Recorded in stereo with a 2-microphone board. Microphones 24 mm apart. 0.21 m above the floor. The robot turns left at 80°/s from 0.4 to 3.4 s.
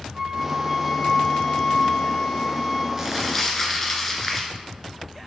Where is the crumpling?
160° right, 2 m; by 4.5 s 165° left, 2 m.